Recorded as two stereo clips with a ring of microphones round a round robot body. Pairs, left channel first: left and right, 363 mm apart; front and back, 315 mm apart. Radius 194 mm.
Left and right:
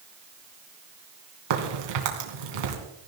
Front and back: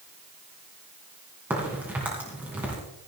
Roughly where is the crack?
Right.